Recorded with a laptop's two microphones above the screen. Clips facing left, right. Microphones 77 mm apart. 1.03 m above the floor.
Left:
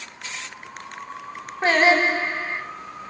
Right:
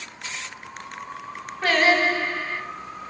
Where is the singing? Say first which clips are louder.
Left 2 dB; 25° left (ahead or behind), 1.4 m.